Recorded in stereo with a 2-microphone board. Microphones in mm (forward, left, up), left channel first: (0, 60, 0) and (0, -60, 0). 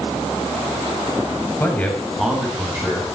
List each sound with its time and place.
1.6 s a man speaking: 20° left (ahead or behind), 1.4 m; by 3.0 s 20° right (ahead or behind), 2 m